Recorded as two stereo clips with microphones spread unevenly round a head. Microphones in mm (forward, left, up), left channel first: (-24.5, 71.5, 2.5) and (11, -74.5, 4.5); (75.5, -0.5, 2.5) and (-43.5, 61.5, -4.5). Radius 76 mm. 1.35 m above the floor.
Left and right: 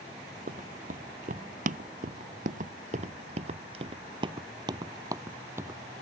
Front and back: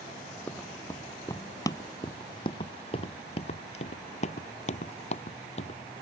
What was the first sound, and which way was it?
Running footsteps, 105° right.